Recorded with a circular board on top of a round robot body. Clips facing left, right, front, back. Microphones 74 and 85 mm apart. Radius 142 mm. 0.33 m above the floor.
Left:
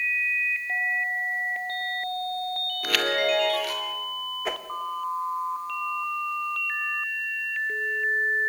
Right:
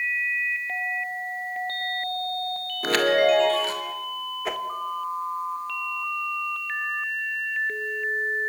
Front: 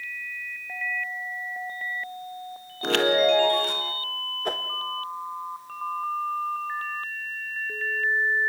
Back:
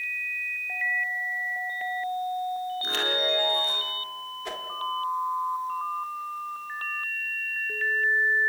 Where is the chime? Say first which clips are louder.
Right 6 dB, front 14 dB; 30° right, 1.8 m.